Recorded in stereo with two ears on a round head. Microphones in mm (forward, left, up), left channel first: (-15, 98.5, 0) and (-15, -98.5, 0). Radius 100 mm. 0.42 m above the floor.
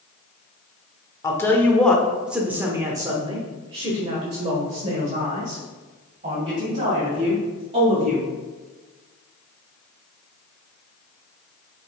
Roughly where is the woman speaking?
Centre.